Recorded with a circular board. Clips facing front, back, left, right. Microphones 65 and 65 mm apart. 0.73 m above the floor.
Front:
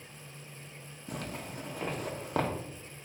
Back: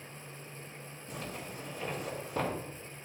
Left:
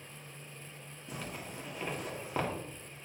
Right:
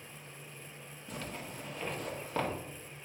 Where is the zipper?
10° left, 1.7 m.